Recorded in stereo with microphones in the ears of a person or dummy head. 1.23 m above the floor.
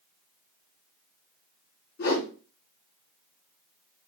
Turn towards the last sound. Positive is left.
turn(degrees=50)  # may be behind; listen again after turning